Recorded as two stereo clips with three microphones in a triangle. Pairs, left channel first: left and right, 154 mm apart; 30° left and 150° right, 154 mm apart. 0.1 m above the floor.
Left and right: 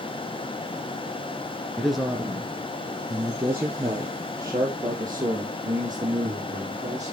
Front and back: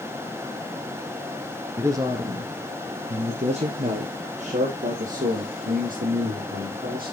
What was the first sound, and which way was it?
A man speaking, 175° left.